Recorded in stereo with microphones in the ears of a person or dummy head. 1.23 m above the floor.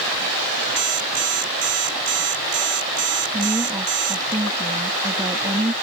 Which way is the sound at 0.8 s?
40° right (ahead or behind).